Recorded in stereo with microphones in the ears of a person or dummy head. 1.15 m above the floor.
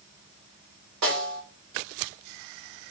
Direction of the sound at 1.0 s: 65° right (ahead or behind).